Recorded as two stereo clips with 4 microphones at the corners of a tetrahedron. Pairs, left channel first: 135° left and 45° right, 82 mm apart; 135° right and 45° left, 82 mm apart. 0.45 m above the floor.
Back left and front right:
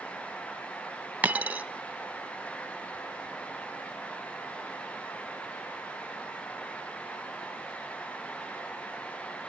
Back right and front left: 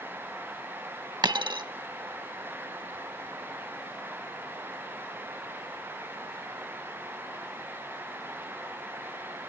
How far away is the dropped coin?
About 0.8 m.